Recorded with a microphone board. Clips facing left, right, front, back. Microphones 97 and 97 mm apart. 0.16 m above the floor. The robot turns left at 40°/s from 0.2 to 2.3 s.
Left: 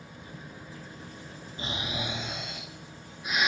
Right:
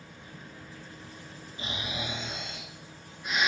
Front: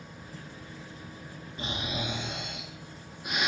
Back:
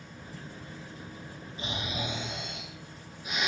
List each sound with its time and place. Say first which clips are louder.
1.6 s snoring: left 2 dB, front 1 dB; 35° left, 0.7 m; by 3.5 s 5° left, 0.7 m